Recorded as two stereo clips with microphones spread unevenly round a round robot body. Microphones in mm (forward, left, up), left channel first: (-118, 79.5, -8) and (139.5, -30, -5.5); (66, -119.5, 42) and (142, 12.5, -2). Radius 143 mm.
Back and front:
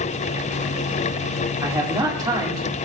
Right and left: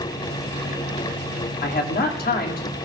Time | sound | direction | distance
1.6 | a man speaking | 100° right | 2 m